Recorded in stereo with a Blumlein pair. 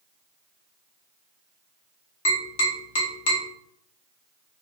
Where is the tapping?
55° left, 1.7 m.